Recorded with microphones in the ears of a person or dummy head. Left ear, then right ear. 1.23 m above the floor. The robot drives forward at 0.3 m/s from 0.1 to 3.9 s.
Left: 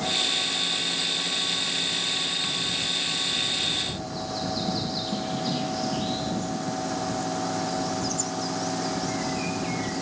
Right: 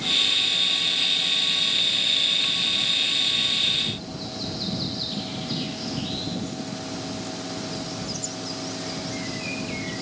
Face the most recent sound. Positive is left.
No sound to turn to.